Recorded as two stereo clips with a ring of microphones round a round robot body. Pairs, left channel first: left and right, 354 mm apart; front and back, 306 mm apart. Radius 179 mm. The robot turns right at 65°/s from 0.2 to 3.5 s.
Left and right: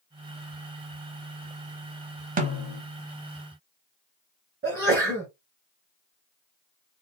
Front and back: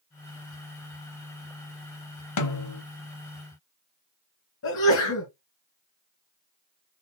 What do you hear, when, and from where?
2.4 s a snare drum: 25° right, 0.8 m; by 2.8 s 5° left, 0.8 m
4.6 s a sneeze: 30° right, 1.8 m